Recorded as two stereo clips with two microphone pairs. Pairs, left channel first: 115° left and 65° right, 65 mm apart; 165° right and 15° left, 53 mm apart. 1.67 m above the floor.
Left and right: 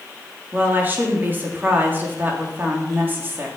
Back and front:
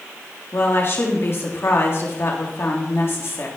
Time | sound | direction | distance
0.5 | a woman speaking | 125° right | 3.5 m